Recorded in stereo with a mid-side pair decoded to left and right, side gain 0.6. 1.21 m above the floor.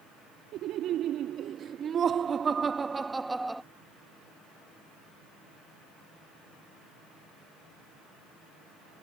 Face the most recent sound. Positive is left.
turn(degrees=-5)